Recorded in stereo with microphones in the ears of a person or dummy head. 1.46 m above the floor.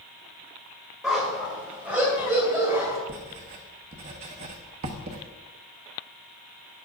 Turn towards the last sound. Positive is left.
turn(degrees=-40)  # may be behind; listen again after turning